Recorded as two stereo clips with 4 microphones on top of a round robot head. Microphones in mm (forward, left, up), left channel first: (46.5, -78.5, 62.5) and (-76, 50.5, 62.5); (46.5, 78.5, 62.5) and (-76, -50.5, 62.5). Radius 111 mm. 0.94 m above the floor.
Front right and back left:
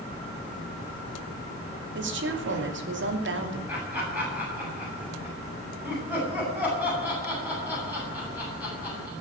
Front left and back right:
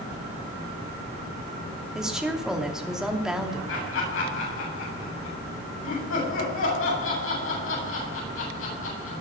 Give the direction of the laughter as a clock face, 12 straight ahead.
10 o'clock.